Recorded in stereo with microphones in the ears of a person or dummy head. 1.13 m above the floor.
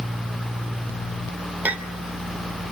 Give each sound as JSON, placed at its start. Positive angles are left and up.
{"t": 1.6, "sound": "a clink", "side_deg": -5, "distance_m": 2.5}